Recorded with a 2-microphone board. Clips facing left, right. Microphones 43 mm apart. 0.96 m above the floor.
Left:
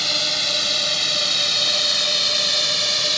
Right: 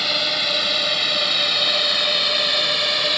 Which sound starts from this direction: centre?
A drone, at 0.0 s.